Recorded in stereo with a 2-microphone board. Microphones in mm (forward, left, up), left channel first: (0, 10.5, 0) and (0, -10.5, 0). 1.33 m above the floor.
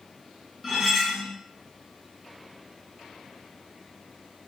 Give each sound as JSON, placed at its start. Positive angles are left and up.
{"t": 0.6, "sound": "cutlery clinking", "side_deg": -15, "distance_m": 0.8}